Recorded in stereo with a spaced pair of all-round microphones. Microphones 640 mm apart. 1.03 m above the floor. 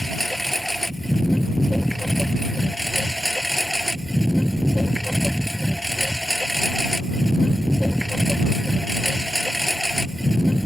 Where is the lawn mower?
Centre (ahead or behind).